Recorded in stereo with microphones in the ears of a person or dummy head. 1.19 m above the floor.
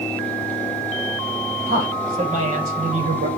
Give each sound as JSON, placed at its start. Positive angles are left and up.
{"t": 1.7, "sound": "a man speaking", "side_deg": -30, "distance_m": 5.0}